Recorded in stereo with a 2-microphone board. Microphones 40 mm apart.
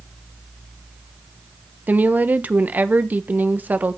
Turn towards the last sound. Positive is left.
turn(degrees=-45)  # may be behind; listen again after turning